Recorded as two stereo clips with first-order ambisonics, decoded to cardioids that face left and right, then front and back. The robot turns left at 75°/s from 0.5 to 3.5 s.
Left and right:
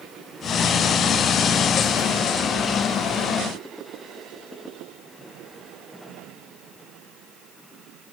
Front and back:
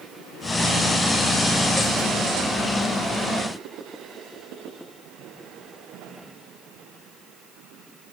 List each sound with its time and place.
Only background noise.